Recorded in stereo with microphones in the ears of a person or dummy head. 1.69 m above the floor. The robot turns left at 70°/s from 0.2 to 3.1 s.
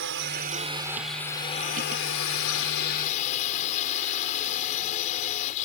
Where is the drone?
115° right; by 5.7 s 40° left.